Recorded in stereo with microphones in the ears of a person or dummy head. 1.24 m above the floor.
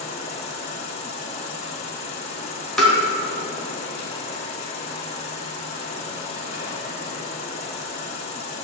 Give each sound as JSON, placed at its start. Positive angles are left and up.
{"t": 0.0, "sound": "an insect", "side_deg": 40, "distance_m": 1.8}
{"t": 2.8, "sound": "tapping", "side_deg": 0, "distance_m": 1.8}